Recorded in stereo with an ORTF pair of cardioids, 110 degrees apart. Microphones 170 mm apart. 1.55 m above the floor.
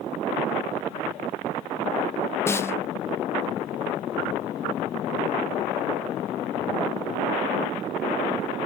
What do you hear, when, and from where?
2.5 s a snare drum: 15° left, 0.8 m